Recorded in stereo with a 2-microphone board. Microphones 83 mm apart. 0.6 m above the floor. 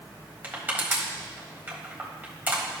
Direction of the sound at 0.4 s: 20° right (ahead or behind).